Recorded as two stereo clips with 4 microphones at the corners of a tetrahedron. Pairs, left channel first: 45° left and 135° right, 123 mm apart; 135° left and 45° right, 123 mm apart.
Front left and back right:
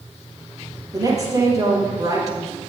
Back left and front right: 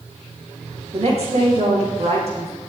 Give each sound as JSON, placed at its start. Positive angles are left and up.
{"t": 0.9, "sound": "a woman speaking", "azimuth_deg": -75, "distance_m": 4.5}